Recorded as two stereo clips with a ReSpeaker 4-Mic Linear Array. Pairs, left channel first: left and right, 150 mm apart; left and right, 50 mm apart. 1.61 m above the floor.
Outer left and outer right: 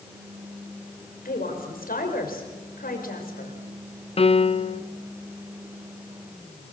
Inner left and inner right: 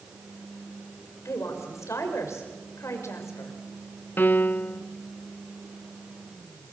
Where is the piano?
40° left (ahead or behind), 0.6 m.